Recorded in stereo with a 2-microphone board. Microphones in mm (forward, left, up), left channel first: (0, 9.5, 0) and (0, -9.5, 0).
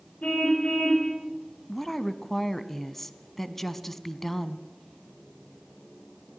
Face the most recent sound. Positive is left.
turn(degrees=15)  # may be behind; listen again after turning